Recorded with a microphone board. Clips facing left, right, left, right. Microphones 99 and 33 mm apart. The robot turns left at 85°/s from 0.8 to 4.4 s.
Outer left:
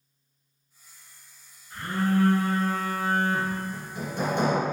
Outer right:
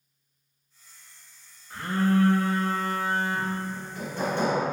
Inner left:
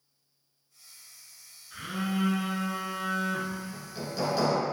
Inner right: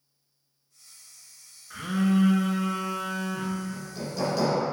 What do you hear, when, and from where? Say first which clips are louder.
1.7 s a phone buzzing: outer right 2 dB, inner right 7 dB; 110° right, 0.9 m; by 3.6 s 90° left, 0.9 m
3.7 s hammering: outer left 1 dB, inner right 2 dB; 15° left (ahead or behind), 1.4 m